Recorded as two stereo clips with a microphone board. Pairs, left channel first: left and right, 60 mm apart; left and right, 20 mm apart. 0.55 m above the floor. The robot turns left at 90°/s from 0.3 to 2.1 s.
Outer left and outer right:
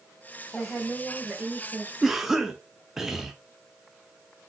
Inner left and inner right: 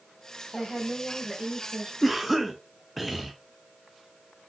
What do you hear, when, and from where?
0.5 s a woman speaking: 40° left, 1.6 m; by 1.9 s 85° right, 1.6 m
2.0 s a cough: 5° right (ahead or behind), 0.6 m